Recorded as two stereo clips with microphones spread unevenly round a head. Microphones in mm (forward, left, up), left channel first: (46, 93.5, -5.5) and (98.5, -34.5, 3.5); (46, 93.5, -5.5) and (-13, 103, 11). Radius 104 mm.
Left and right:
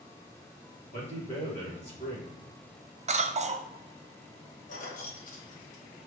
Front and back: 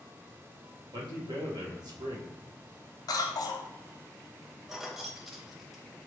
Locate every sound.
0.9 s a man speaking: 175° left, 1.8 m
3.1 s a cough: 25° right, 0.7 m
4.7 s keys jangling: 100° left, 0.9 m